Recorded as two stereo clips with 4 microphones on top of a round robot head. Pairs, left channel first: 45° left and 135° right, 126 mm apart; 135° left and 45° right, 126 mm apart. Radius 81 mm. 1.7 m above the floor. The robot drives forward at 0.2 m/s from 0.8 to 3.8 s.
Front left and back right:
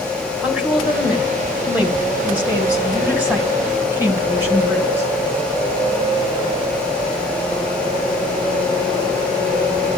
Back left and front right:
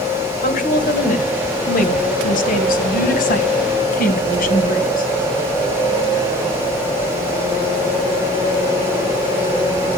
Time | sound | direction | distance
0.4 | a woman speaking | 140° left | 2 m